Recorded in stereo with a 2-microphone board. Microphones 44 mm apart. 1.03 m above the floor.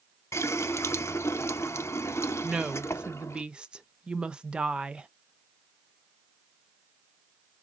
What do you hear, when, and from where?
0.3 s a running tap: 85° left, 0.6 m
2.4 s a woman speaking: 20° right (ahead or behind), 0.5 m